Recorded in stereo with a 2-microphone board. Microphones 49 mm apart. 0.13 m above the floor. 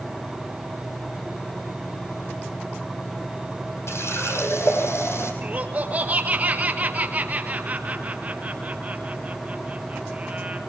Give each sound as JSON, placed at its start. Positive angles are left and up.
{"t": 3.9, "sound": "a running tap", "side_deg": 55, "distance_m": 3.5}
{"t": 5.4, "sound": "laughter", "side_deg": -30, "distance_m": 3.0}